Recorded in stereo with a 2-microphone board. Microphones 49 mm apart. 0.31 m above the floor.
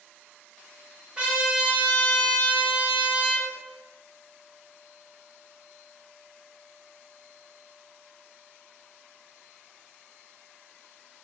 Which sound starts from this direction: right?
A trumpet, at 1.2 s.